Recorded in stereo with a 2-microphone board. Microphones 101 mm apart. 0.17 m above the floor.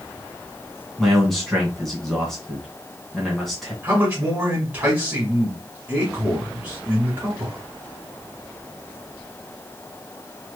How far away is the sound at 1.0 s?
About 1.9 m.